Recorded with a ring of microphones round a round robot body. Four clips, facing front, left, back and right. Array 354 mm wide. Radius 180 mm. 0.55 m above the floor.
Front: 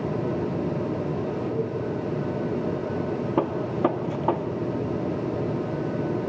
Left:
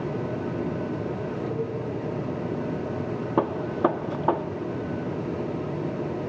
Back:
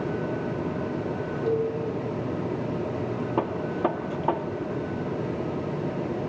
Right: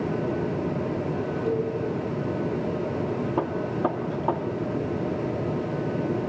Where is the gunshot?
55° left, 0.6 m.